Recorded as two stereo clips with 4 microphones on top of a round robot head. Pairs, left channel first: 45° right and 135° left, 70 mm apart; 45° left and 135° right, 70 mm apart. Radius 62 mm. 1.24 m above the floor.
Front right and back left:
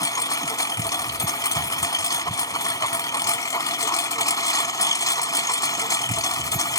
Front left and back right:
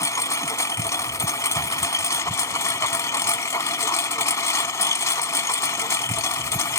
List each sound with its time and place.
0.0 s a lawn mower: 5° right